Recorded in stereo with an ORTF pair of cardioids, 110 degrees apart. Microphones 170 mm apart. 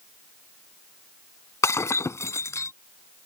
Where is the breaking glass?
20° left.